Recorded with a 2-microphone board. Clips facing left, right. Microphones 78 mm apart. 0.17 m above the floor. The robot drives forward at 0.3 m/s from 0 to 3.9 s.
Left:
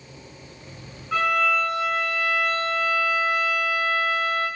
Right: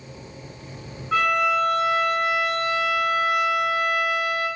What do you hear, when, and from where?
1.1 s a violin: 15° right (ahead or behind), 1.7 m; by 4.5 s 10° right (ahead or behind), 2.5 m